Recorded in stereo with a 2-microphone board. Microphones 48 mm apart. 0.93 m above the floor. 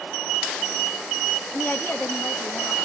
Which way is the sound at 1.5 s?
40° left (ahead or behind).